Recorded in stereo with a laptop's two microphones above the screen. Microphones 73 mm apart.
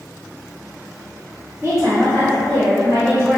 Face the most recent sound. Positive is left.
turn(degrees=-70)  # may be behind; listen again after turning